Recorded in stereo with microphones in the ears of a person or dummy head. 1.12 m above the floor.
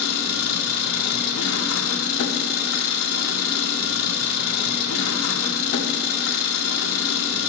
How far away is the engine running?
About 1.5 m.